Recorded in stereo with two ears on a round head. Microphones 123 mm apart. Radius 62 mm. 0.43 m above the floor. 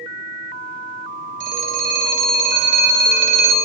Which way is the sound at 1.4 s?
55° right (ahead or behind).